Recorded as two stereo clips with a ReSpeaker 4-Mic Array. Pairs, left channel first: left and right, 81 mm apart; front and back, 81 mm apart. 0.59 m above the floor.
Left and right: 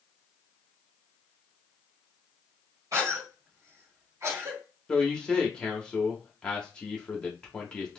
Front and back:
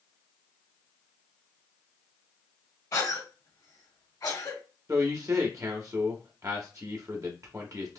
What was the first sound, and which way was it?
A cough, 50° right.